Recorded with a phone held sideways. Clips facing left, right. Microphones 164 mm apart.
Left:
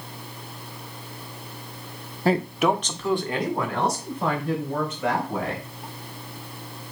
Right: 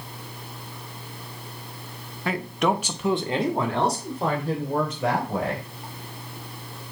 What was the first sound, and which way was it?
A man speaking, 35° left (ahead or behind).